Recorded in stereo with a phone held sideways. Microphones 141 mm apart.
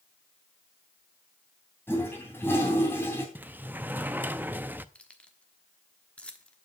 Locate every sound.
1.9 s a toilet flushing: 15° left (ahead or behind), 3 m
3.4 s a sliding door: 15° right (ahead or behind), 0.5 m
5.0 s keys jangling: 10° left (ahead or behind), 1.2 m